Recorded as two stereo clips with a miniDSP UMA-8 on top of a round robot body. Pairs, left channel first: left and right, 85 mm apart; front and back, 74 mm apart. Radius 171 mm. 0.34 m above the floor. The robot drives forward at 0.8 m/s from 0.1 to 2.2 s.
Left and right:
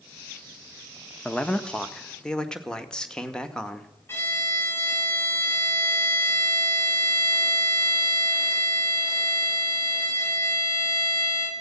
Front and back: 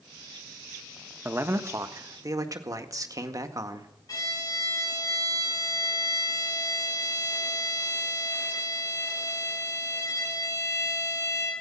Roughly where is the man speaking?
Behind left.